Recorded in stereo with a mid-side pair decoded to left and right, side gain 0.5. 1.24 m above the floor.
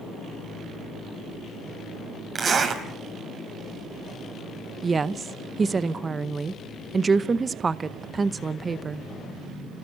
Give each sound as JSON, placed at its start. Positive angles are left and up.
{"t": 2.4, "sound": "a zipper", "azimuth_deg": -45, "distance_m": 5.0}
{"t": 4.8, "sound": "a woman speaking", "azimuth_deg": -30, "distance_m": 0.8}